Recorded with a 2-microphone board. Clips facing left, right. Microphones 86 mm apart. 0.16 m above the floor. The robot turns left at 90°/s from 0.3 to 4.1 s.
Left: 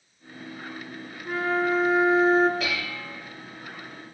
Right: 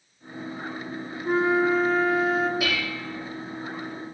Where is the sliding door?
No sliding door in this recording.